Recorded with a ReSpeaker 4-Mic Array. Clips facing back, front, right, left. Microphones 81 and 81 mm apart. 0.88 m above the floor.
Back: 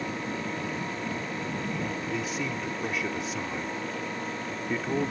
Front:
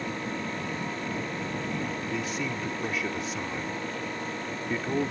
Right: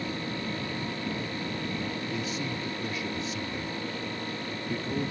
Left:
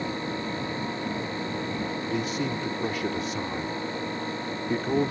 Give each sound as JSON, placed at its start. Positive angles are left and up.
{"t": 2.0, "sound": "a man speaking", "azimuth_deg": 90}